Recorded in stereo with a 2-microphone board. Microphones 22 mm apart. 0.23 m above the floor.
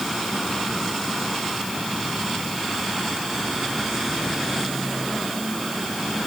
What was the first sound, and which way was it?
Only background noise.